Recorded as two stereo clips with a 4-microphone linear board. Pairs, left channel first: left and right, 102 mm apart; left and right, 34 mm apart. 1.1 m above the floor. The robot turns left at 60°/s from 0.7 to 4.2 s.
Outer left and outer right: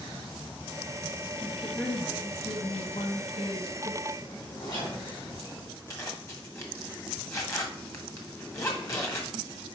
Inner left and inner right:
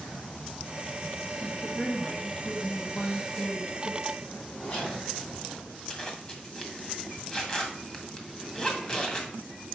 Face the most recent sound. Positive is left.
turn(degrees=30)  # may be behind; listen again after turning